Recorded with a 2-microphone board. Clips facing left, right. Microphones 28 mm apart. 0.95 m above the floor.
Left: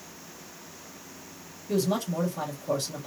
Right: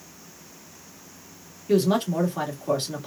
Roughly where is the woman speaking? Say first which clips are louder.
Right 6 dB; right.